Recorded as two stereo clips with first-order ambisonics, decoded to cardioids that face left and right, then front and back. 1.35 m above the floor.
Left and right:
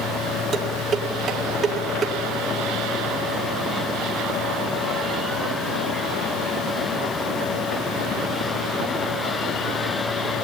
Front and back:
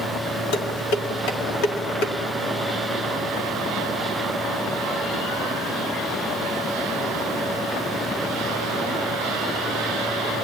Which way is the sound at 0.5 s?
25° right.